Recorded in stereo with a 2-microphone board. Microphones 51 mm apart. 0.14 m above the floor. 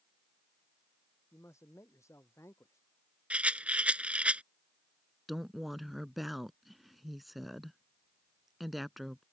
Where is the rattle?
25° right (ahead or behind).